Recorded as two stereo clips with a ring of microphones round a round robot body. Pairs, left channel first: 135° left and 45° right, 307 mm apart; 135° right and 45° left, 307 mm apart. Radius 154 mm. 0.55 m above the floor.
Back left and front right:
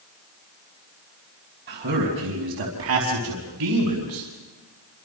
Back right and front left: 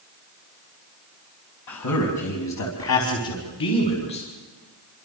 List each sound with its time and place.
1.7 s a man speaking: 105° right, 4.5 m; by 4.3 s 75° right, 4.5 m